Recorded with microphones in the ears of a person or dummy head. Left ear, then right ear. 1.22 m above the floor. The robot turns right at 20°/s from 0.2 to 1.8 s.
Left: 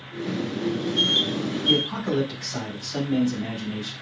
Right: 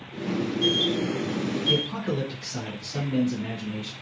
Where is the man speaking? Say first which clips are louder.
Left 4 dB; 50° left (ahead or behind), 6 m.